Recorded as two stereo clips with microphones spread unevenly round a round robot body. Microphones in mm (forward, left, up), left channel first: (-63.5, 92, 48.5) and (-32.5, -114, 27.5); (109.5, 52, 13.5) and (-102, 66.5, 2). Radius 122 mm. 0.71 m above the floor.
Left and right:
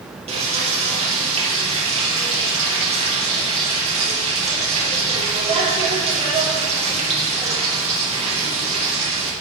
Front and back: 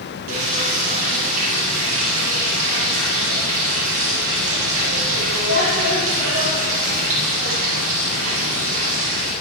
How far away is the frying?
About 6 m.